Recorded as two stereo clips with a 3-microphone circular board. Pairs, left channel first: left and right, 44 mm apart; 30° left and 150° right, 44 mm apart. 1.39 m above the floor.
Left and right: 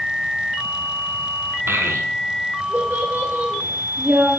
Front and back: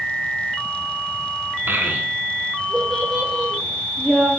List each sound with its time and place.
1.7 s a child speaking: 115° right, 0.6 m; by 4.3 s 60° right, 3 m